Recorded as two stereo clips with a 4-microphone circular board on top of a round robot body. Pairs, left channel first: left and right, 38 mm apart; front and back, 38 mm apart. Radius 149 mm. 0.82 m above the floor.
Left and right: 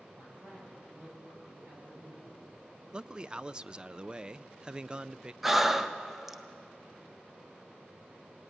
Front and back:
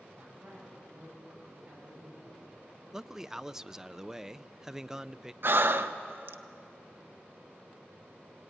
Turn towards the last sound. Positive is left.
turn(degrees=-170)